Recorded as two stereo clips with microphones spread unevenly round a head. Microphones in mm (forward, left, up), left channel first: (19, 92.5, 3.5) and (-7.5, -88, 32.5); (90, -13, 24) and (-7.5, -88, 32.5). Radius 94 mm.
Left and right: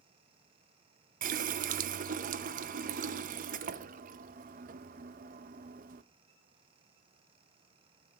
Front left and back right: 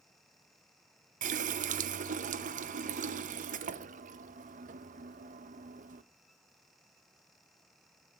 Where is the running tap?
140° right, 0.6 m.